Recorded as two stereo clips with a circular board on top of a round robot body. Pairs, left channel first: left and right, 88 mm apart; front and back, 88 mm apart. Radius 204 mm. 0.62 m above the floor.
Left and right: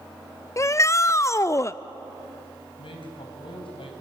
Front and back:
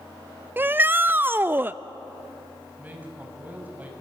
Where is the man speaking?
105° left, 4.5 m.